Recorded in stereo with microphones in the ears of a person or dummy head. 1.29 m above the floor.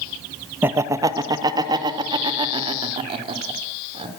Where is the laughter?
10° right (ahead or behind), 1.1 m; by 4.1 s 30° right (ahead or behind), 4 m.